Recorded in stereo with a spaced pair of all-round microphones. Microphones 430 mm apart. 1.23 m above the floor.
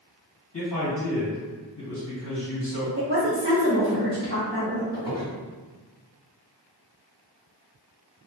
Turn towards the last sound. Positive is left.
turn(degrees=-10)  # may be behind; listen again after turning